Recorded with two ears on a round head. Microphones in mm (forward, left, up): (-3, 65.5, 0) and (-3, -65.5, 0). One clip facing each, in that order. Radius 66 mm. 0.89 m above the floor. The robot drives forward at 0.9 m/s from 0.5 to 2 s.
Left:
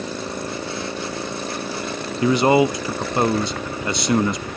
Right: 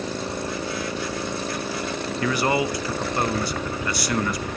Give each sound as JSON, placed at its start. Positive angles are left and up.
{"t": 2.2, "sound": "a man speaking", "side_deg": 20, "distance_m": 0.5}